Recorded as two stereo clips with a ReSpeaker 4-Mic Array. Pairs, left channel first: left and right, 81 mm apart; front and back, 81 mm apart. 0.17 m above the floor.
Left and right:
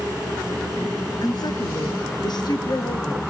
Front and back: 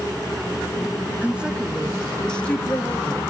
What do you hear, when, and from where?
1.2 s a woman speaking: 110° left, 1.9 m; by 3.3 s 60° left, 2.5 m